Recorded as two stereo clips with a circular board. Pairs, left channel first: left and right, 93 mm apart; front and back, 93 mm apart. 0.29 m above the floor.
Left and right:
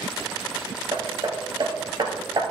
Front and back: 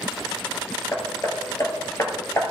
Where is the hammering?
55° right, 1.5 m.